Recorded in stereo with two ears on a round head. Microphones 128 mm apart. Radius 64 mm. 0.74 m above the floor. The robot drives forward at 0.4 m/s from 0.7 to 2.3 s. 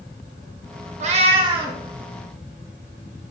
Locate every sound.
1.0 s a cat meowing: 50° right (ahead or behind), 0.5 m; by 1.8 s 30° right (ahead or behind), 0.7 m